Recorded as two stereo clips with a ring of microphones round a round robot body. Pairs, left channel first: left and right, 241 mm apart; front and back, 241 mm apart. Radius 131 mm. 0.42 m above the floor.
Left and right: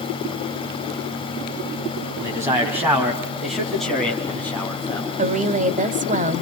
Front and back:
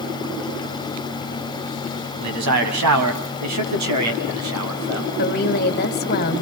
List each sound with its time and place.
2.2 s a man speaking: 165° right, 3 m; by 5.1 s 170° left, 4 m
5.2 s a woman speaking: 40° right, 1.7 m